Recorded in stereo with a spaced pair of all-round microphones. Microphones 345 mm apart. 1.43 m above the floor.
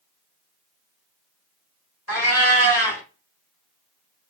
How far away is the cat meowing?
About 1.7 m.